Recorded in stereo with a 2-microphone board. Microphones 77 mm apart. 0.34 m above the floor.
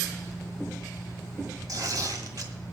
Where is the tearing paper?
55° right (ahead or behind), 1.9 m.